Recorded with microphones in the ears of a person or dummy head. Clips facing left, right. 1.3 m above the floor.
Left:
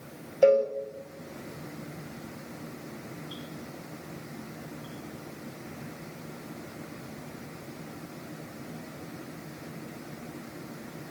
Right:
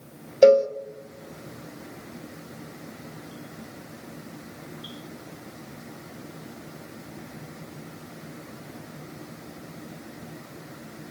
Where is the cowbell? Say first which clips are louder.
Right 5 dB; 50° right (ahead or behind), 1.1 m.